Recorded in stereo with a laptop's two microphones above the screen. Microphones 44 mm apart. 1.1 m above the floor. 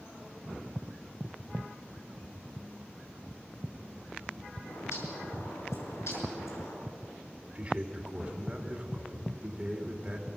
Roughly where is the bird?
Left.